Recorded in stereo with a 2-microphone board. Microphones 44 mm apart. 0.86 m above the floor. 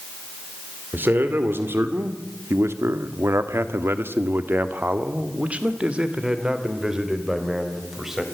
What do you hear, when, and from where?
0.9 s a man speaking: 50° right (ahead or behind), 2.5 m; by 8.2 s 10° right (ahead or behind), 4 m